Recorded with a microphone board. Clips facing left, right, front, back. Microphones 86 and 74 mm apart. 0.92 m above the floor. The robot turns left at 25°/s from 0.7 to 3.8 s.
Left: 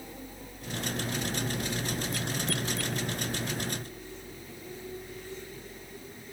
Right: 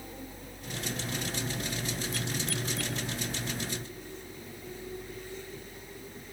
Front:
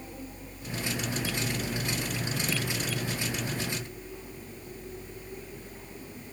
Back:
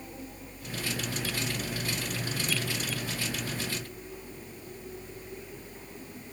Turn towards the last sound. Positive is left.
No sound to turn to.